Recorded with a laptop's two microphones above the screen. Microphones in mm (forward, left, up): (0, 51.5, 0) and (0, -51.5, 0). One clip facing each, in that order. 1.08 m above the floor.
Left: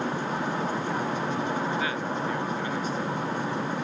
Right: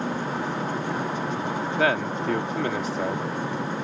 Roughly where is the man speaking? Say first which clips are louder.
Right 5 dB; right.